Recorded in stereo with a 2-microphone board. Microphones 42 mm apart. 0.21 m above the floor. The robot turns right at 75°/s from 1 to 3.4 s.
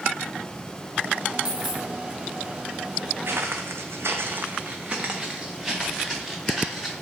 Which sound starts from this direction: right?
Footsteps, at 3.2 s.